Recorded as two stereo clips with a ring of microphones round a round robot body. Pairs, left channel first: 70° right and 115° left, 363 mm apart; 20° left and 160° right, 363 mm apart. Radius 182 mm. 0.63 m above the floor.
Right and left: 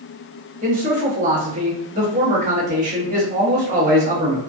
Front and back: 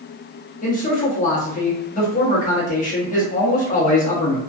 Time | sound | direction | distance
0.6 | a man speaking | 70° left | 1.0 m